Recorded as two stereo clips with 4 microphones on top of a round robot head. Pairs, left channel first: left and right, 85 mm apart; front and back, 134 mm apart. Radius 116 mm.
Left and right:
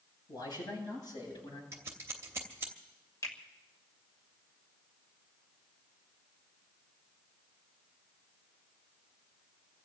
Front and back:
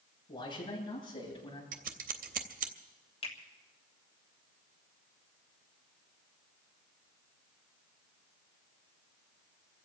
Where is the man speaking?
55° left, 9 m.